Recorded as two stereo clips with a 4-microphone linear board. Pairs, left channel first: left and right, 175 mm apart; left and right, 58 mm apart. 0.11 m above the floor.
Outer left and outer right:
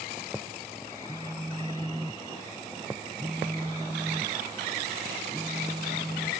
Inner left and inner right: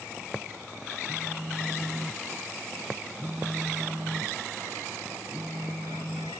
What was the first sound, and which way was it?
A phone buzzing, 10° right (ahead or behind).